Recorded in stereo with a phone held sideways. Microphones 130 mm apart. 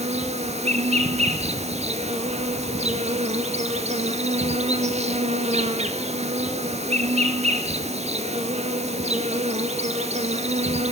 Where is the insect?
55° right (ahead or behind), 1.5 m.